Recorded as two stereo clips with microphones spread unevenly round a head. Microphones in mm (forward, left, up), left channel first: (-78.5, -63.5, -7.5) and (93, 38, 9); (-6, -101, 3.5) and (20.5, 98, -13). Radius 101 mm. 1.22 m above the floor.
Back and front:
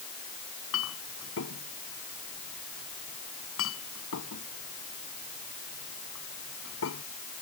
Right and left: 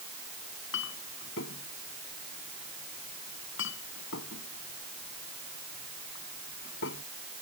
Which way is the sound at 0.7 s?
130° right.